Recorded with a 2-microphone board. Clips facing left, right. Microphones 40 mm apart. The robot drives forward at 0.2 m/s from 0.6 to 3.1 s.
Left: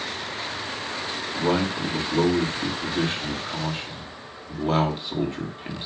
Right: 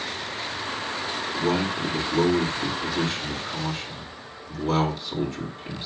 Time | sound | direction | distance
1.3 | a man speaking | 35° left (ahead or behind) | 2 m